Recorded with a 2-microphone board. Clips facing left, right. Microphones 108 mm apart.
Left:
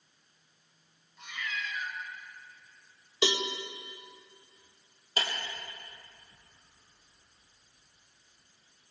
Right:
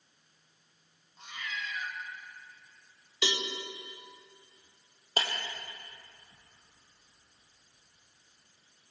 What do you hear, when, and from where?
1.2 s a cat meowing: 35° right (ahead or behind), 3 m
3.2 s a cowbell: 30° left (ahead or behind), 2 m
5.2 s breaking glass: 35° right (ahead or behind), 4.5 m